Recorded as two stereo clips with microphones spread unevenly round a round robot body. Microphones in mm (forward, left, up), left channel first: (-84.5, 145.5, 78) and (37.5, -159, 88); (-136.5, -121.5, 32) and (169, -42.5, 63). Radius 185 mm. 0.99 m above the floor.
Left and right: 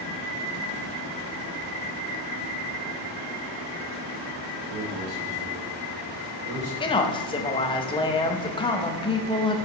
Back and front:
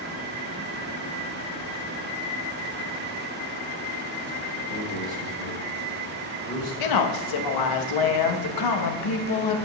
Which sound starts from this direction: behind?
A woman speaking, at 6.8 s.